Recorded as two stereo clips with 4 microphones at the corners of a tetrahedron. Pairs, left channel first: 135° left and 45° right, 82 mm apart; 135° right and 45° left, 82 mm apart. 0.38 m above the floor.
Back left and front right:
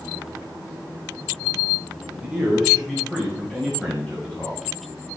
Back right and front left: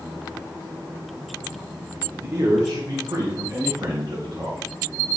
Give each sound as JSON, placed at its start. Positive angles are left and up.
{"t": 2.2, "sound": "a man speaking", "azimuth_deg": 35, "distance_m": 1.7}